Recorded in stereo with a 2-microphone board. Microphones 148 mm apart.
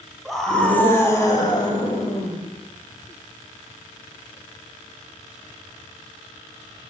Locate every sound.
0.2 s a scream: centre (ahead or behind), 1.3 m; by 2.4 s 45° left (ahead or behind), 1.6 m